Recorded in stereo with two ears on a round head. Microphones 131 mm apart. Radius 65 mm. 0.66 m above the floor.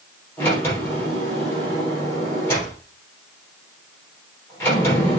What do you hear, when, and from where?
0.4 s a sliding door: 15° left (ahead or behind), 5 m